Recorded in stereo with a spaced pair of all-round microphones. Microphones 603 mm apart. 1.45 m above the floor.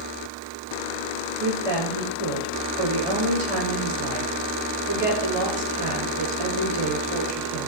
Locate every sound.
1.4 s a woman speaking: 65° right (ahead or behind), 6.5 m